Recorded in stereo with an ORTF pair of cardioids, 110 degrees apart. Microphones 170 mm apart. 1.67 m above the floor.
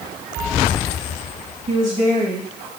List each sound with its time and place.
1.7 s a woman speaking: 45° right, 2 m; by 2.7 s 50° right, 1.3 m